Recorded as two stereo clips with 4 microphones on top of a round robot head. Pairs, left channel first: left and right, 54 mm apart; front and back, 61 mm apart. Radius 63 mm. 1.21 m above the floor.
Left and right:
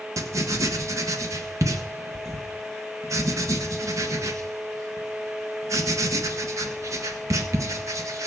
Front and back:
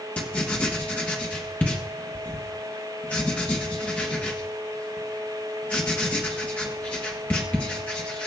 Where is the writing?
70° right, 1.5 m.